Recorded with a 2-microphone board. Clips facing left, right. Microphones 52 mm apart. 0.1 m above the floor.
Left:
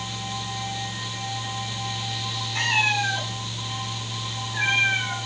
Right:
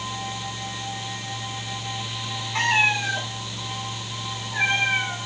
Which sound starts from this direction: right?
A cat meowing, at 2.5 s.